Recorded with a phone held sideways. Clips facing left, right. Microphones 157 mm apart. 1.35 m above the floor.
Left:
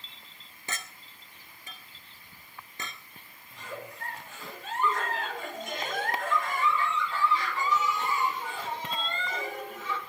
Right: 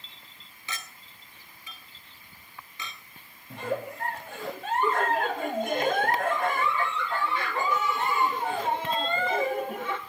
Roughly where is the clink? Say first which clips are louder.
Left 1 dB; left.